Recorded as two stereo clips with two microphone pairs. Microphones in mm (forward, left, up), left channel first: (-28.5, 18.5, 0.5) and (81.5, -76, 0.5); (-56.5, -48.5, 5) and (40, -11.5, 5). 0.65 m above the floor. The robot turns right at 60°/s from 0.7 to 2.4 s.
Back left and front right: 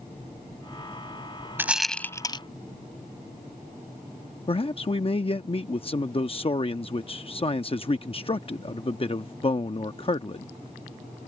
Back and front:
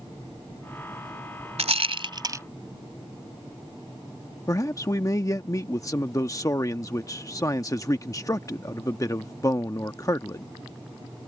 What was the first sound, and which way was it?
A rattle, 35° left.